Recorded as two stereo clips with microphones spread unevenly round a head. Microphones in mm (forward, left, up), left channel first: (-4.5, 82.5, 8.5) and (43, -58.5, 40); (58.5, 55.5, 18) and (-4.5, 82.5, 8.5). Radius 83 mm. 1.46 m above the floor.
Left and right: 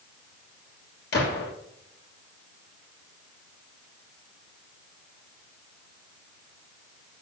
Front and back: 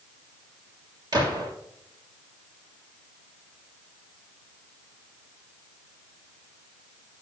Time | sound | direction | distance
1.1 | a gunshot | 135° left | 1.6 m